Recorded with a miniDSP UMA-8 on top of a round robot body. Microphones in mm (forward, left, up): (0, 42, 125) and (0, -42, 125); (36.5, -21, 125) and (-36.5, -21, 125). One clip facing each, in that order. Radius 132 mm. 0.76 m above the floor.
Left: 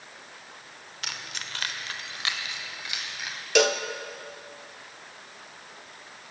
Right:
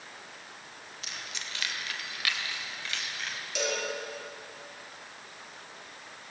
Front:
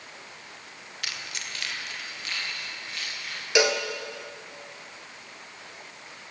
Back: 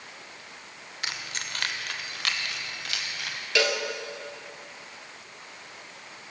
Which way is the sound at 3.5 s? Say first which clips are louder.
Left 10 dB, front 3 dB; 70° left.